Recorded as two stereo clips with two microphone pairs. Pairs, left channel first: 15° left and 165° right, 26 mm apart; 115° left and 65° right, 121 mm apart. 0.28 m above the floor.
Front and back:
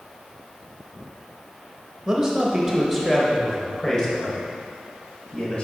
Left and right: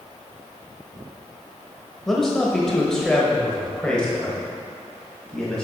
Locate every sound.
2.1 s a man speaking: 160° right, 1.2 m; by 5.6 s 35° left, 1.7 m